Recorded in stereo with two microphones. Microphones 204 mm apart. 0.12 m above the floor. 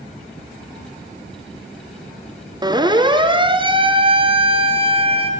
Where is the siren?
20° right (ahead or behind), 2 m; by 5.3 s 30° right (ahead or behind), 3 m.